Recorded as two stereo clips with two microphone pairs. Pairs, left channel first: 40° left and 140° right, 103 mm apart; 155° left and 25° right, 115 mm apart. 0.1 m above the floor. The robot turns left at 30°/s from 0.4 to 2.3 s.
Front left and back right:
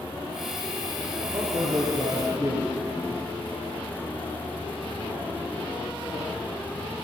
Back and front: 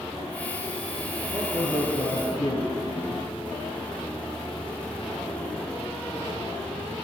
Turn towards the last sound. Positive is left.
turn(degrees=180)